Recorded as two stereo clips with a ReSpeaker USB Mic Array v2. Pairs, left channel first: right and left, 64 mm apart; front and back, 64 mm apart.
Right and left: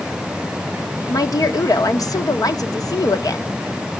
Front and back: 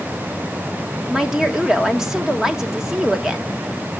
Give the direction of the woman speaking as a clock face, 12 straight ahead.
3 o'clock.